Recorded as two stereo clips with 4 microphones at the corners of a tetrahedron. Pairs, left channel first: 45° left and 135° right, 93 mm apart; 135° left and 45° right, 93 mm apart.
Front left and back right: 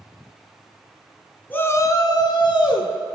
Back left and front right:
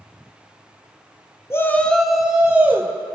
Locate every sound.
1.5 s a shout: 100° left, 1.2 m; by 2.9 s 20° left, 2.5 m